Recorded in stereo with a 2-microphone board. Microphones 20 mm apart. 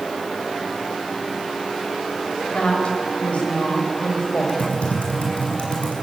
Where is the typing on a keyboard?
80° left, 7 m.